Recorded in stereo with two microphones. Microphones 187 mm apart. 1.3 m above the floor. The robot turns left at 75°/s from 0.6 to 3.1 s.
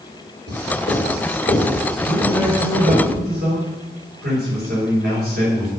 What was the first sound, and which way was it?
Writing, 70° left (ahead or behind).